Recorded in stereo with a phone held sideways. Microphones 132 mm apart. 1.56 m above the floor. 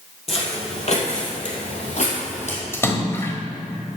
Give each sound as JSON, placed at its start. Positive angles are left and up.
{"t": 0.3, "sound": "footsteps", "side_deg": 50, "distance_m": 3.0}
{"t": 2.7, "sound": "a splash", "side_deg": 20, "distance_m": 1.5}